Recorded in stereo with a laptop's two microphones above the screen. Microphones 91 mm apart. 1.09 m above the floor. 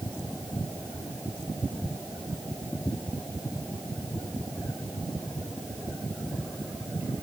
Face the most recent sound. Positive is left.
No sound to turn to.